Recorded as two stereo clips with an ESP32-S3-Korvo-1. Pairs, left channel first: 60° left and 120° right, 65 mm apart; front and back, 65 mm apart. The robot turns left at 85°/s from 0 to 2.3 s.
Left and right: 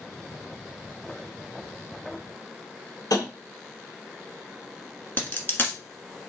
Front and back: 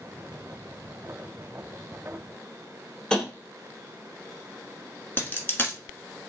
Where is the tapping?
80° left, 1.5 m.